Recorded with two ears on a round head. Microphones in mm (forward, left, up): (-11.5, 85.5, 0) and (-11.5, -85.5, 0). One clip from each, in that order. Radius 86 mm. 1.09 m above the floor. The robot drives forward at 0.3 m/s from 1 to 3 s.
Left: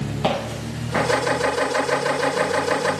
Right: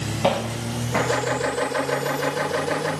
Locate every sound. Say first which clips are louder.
0.2 s footsteps: right 1 dB; 5° left (ahead or behind), 1.9 m